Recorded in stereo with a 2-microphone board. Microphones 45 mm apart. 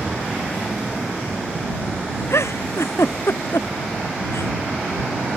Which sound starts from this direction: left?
A giggle, at 2.3 s.